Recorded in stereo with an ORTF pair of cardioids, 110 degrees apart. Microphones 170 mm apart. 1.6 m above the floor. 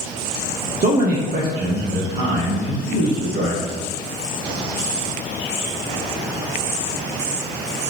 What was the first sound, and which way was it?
A man speaking, 45° right.